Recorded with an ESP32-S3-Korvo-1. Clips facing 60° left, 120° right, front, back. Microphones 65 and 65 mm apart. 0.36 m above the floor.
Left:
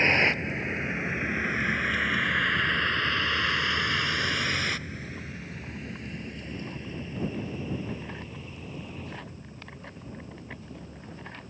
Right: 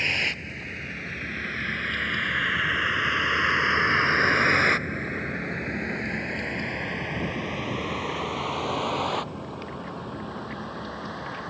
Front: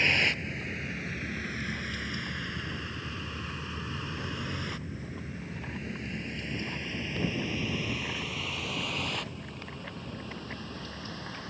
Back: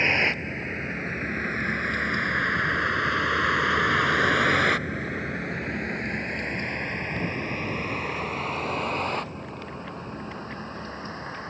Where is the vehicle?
120° left; by 11.5 s 120° right.